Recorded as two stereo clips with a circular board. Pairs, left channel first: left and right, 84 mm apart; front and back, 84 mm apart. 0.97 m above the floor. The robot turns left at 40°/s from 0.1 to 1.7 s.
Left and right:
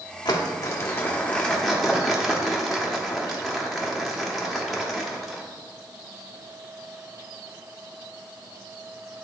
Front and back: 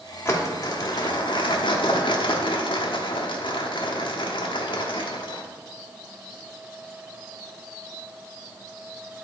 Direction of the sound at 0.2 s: 60° left.